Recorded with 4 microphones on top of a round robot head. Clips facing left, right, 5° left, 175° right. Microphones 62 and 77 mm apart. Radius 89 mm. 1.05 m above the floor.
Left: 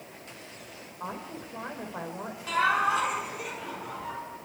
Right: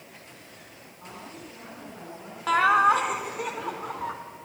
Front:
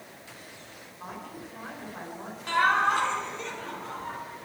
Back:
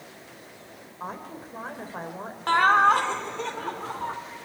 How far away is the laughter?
About 4.5 m.